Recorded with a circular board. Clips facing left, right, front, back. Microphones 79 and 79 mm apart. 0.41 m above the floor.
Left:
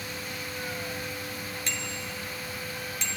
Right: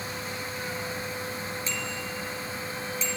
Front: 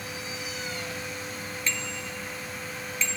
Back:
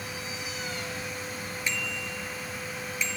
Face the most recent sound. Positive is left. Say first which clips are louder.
# right 2 dB, back 1 dB
turn(degrees=105)